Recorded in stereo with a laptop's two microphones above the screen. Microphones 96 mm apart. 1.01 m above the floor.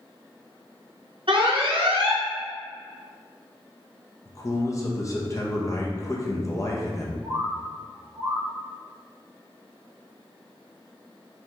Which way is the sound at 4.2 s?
30° left (ahead or behind).